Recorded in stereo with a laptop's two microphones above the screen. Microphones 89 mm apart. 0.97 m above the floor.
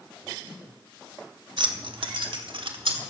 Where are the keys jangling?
60° right (ahead or behind), 0.8 m; by 3.0 s 70° right (ahead or behind), 1.7 m.